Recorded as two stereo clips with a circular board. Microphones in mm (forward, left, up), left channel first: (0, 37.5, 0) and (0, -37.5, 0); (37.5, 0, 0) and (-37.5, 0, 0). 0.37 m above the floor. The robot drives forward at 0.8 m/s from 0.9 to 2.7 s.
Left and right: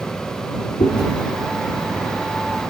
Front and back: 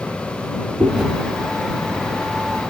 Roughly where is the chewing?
Left.